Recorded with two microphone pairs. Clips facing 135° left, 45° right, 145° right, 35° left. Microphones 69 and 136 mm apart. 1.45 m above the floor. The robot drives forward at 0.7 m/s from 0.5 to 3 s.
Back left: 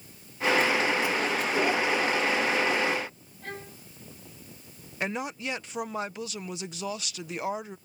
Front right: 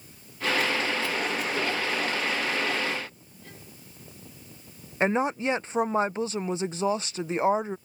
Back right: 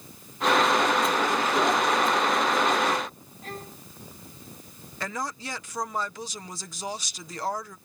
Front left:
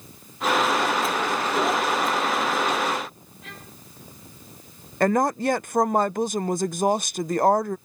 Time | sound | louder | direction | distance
3.4 | a violin | back left 9 dB, back right 6 dB | 165° left | ?
5.0 | a woman speaking | front right 8 dB, front left 13 dB | 5° left | ?